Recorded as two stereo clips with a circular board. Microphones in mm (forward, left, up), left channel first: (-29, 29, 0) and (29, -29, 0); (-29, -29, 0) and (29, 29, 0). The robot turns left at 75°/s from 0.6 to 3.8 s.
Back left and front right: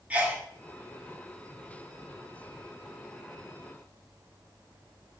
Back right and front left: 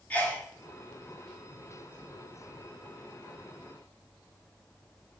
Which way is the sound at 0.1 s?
90° right.